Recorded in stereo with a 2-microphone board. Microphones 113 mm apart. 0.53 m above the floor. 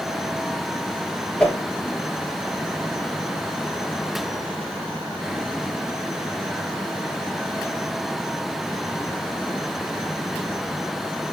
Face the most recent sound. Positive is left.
turn(degrees=10)  # may be behind; listen again after turning